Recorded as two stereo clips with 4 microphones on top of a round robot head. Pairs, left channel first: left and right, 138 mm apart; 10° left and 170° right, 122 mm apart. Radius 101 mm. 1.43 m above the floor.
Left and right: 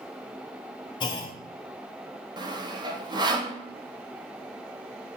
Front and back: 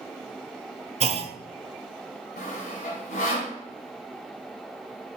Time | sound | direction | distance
1.0 | a clunk | 150° left | 0.6 m
2.4 | sawing | 30° right | 1.0 m